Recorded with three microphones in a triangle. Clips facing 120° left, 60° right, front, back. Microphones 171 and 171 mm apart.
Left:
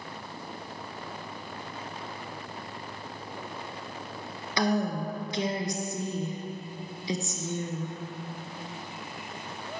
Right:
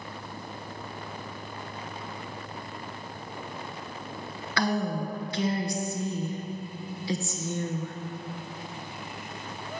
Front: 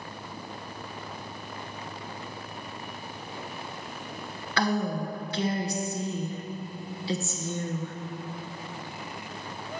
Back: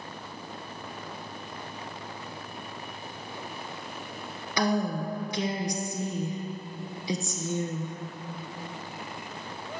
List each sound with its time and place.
4.6 s a woman speaking: 140° left, 1.1 m